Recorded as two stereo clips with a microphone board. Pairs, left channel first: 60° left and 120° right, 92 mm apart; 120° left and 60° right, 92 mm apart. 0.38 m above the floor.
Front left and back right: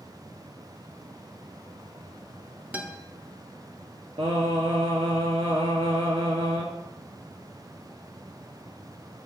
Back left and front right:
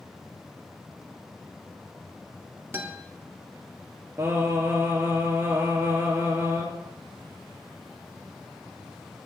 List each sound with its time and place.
2.7 s a guitar: 70° right, 0.6 m
4.2 s singing: 125° right, 1.1 m